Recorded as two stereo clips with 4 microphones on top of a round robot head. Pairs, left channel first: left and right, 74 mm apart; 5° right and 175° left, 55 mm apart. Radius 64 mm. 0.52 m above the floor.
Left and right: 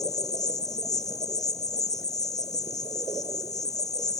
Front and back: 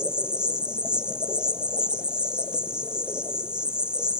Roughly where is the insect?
Left.